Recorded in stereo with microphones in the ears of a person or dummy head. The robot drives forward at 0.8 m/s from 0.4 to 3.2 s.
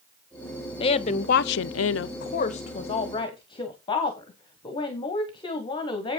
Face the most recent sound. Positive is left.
turn(degrees=20)  # may be behind; listen again after turning